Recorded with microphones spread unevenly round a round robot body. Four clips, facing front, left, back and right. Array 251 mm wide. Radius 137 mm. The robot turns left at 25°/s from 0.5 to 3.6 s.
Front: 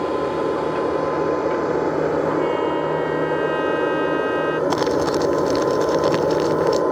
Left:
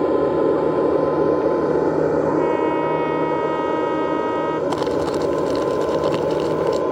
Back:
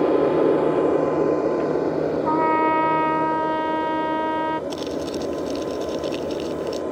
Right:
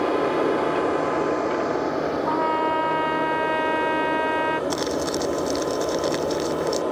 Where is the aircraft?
140° left; by 6.9 s 35° left.